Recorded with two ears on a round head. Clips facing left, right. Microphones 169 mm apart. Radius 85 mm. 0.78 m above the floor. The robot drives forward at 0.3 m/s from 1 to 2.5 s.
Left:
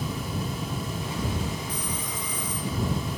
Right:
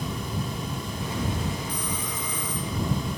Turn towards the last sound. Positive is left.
turn(degrees=-70)  # may be behind; listen again after turning